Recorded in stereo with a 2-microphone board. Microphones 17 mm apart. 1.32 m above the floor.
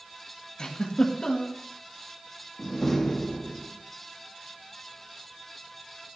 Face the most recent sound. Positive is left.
turn(degrees=20)  # may be behind; listen again after turning